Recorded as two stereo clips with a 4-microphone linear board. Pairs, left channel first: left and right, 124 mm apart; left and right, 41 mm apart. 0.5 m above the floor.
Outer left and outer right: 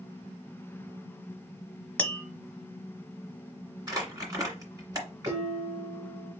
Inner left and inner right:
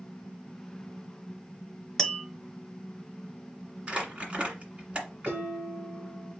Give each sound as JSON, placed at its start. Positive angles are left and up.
{"t": 2.0, "sound": "tapping", "side_deg": 10, "distance_m": 0.8}
{"t": 3.9, "sound": "crumpling", "side_deg": -30, "distance_m": 1.8}
{"t": 5.2, "sound": "dishes clattering", "side_deg": -60, "distance_m": 1.7}